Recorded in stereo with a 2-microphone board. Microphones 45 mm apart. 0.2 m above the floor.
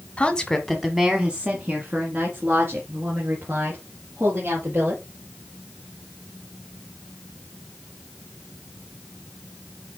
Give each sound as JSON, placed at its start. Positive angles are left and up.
{"t": 0.2, "sound": "a woman speaking", "side_deg": 25, "distance_m": 1.3}